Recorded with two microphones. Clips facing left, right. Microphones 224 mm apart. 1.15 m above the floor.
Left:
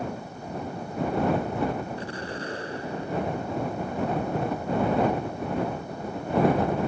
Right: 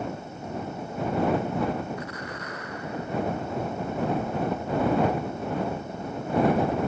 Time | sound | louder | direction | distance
2.0 | an explosion | left 2 dB | 30° left (ahead or behind) | ?